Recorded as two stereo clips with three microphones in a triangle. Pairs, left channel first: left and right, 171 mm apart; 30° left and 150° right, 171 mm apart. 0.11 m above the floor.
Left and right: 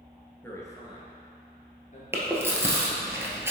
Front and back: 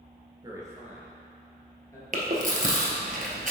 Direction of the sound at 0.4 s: 160° left.